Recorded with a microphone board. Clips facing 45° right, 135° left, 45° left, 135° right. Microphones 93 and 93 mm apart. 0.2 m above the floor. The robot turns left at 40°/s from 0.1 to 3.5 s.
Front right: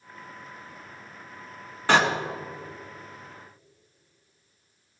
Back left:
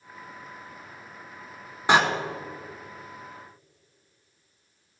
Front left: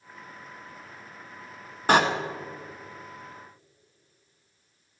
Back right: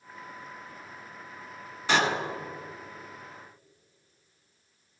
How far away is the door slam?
About 1.5 m.